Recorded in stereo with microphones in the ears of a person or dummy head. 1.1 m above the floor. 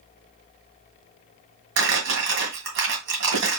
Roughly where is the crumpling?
Right.